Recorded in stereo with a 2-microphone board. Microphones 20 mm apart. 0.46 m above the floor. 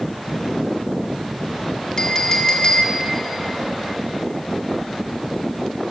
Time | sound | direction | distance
2.0 | a clink | 30° left (ahead or behind) | 0.6 m